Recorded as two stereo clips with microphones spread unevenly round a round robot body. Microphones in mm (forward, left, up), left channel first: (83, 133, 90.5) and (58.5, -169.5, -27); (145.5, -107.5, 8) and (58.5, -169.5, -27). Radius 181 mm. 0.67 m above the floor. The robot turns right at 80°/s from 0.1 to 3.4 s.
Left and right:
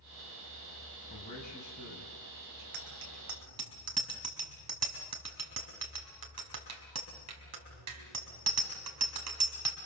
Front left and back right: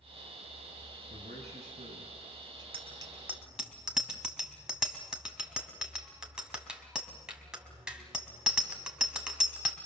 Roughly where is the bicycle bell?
Behind right.